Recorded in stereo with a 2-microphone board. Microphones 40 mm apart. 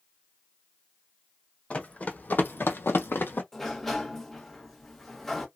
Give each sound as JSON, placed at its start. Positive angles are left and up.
{"t": 1.7, "sound": "running footsteps", "side_deg": 35, "distance_m": 0.8}
{"t": 3.5, "sound": "a sliding door", "side_deg": 10, "distance_m": 0.7}